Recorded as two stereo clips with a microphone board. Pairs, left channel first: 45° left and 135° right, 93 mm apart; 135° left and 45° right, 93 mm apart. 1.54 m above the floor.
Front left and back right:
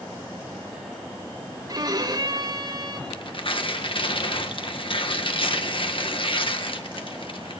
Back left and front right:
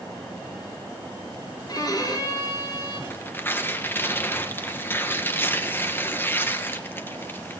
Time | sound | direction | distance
1.7 | a violin | straight behind | 3 m
3.1 | tearing paper | 65° left | 1.8 m